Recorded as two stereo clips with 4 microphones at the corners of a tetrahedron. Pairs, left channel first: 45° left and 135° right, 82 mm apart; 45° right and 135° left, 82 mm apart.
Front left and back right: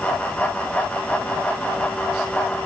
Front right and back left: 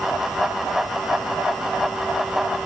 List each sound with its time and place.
Only background noise.